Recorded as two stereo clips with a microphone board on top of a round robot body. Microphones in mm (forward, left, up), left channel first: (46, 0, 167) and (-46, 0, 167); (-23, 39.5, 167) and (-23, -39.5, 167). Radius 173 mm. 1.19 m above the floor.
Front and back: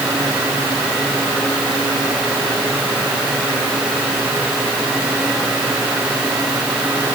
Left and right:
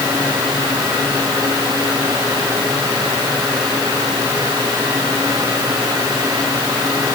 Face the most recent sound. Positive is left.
No sound to turn to.